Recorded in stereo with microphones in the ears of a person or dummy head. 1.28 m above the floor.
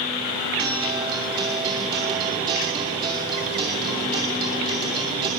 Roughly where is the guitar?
Right.